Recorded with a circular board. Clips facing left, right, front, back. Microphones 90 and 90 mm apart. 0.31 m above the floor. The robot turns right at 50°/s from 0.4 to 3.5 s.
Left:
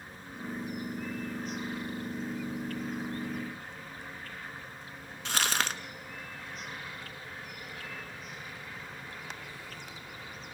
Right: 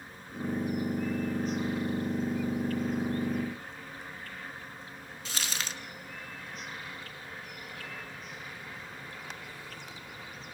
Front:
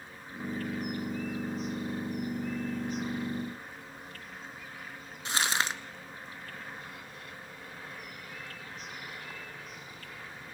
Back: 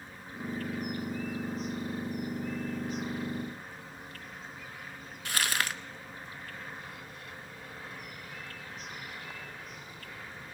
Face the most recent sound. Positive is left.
turn(degrees=65)